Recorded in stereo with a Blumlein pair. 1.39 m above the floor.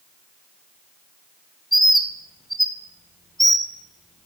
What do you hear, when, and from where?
1.7 s a bird: straight ahead, 1.0 m